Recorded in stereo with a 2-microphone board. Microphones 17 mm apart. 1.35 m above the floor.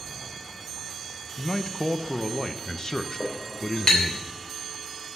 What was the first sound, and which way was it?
A man speaking, 35° left (ahead or behind).